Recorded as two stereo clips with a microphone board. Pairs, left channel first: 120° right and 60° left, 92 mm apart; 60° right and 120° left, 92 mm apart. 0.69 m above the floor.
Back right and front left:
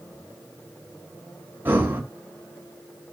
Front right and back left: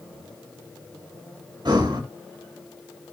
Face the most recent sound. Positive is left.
turn(degrees=125)